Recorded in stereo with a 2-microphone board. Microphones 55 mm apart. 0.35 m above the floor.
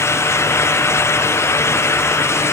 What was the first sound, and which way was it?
Only background noise.